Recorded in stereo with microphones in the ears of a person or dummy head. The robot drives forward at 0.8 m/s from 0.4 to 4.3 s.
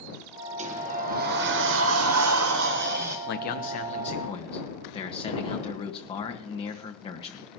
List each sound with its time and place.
0.6 s a sliding door: 35° right (ahead or behind), 1.5 m; by 3.2 s 50° right (ahead or behind), 1.2 m
3.3 s a man speaking: 55° left (ahead or behind), 0.9 m; by 7.5 s 25° left (ahead or behind), 1.6 m